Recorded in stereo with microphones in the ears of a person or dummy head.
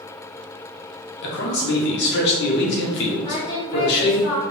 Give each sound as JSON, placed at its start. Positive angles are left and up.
{"t": 1.2, "sound": "a man speaking", "side_deg": 55, "distance_m": 1.1}
{"t": 3.2, "sound": "singing", "side_deg": 25, "distance_m": 1.4}